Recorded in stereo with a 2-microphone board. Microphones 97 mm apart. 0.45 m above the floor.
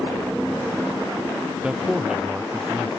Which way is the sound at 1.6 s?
5° right (ahead or behind).